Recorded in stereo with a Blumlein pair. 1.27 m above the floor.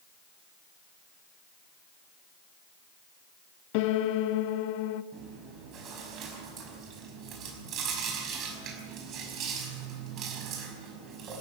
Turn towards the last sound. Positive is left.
turn(degrees=-35)